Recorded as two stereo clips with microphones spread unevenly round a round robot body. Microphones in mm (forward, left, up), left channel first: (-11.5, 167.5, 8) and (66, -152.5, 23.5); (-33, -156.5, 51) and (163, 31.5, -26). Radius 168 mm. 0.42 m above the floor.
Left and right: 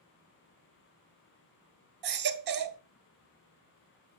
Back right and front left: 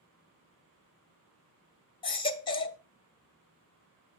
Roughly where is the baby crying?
Ahead right.